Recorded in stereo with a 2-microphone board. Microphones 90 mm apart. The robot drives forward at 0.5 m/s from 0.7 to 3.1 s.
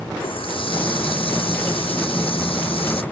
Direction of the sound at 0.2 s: 70° left (ahead or behind).